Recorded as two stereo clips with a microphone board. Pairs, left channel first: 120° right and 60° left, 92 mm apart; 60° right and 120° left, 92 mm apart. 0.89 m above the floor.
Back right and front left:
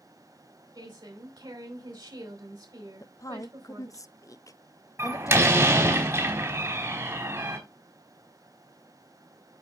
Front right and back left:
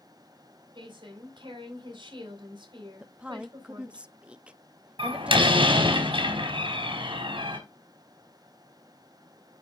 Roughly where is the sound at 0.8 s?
Left.